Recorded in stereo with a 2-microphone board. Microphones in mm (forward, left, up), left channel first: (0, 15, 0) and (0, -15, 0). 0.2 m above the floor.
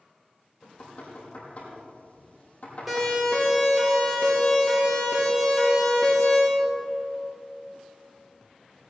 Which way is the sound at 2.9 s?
5° right (ahead or behind).